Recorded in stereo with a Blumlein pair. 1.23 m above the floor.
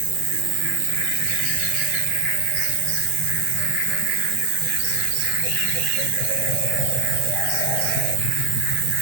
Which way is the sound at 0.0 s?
40° right.